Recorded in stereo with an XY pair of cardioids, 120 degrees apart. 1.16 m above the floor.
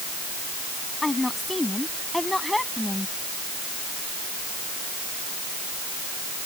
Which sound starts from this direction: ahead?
A woman speaking, at 1.0 s.